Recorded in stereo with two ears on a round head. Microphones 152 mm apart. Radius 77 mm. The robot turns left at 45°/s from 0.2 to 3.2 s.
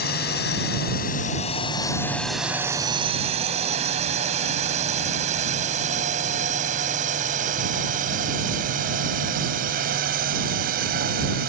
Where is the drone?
65° left (ahead or behind); by 11.5 s 55° right (ahead or behind).